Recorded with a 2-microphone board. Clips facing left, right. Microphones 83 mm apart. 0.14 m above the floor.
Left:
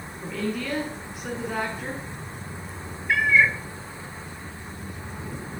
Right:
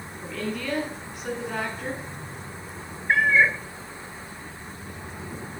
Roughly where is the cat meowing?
Right.